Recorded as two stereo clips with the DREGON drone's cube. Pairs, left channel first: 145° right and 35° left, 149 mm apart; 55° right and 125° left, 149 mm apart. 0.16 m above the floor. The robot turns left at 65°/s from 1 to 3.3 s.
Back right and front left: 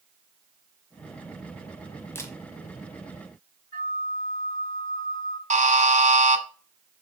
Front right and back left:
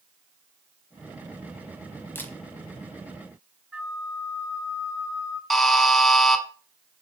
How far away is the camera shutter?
About 1.1 m.